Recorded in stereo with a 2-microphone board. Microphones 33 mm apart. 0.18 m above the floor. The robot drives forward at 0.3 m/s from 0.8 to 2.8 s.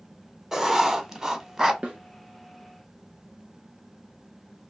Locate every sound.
0.5 s writing: 15° right (ahead or behind), 0.7 m
1.8 s a snare drum: 40° right (ahead or behind), 1.5 m